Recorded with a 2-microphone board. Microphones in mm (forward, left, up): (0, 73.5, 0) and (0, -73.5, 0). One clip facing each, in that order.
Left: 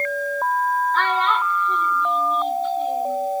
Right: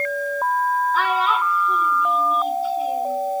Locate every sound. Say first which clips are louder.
0.9 s a child speaking: even; 5° right (ahead or behind), 1.7 m